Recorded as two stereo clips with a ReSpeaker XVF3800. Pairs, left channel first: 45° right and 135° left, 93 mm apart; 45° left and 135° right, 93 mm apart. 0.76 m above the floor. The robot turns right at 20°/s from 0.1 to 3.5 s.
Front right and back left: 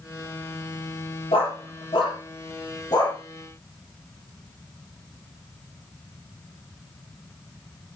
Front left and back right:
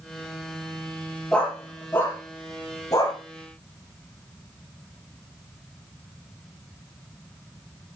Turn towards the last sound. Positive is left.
turn(degrees=5)